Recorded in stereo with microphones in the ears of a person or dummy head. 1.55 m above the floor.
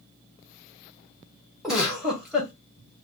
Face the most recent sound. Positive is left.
turn(degrees=0)  # may be behind; listen again after turning